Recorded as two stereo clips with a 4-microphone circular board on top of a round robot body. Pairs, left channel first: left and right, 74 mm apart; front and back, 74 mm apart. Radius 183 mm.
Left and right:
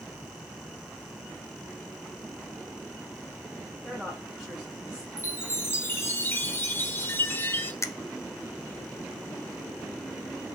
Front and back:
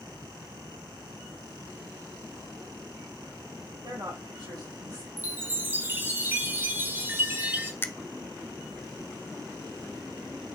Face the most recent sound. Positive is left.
turn(degrees=55)